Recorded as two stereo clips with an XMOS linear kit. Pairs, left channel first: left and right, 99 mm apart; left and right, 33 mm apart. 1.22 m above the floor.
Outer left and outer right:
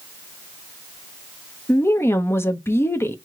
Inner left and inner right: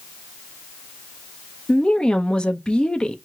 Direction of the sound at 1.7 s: 25° left (ahead or behind).